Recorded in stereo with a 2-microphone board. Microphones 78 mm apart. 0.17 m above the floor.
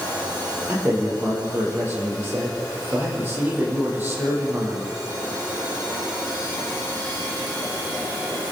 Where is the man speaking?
25° right (ahead or behind), 7.5 m.